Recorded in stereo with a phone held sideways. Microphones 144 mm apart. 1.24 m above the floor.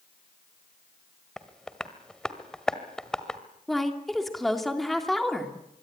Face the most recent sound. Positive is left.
turn(degrees=0)  # may be behind; listen again after turning